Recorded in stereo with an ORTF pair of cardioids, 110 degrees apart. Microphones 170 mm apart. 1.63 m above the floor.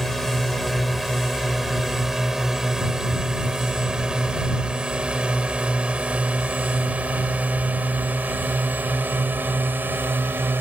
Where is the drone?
Straight ahead; by 10.6 s 10° right.